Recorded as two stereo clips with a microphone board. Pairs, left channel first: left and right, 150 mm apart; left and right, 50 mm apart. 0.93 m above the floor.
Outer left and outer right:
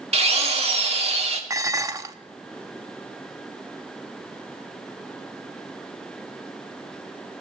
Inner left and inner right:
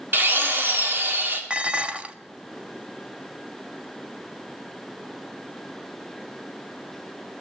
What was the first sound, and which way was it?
A drill, 45° right (ahead or behind).